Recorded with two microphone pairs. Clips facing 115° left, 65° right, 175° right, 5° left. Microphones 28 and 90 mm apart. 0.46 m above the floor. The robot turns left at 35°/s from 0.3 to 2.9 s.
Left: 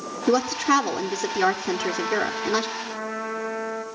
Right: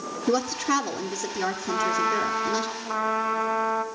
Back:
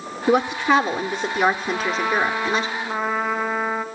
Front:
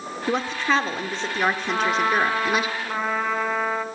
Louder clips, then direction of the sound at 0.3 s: Left 4 dB, back 5 dB; 165° left.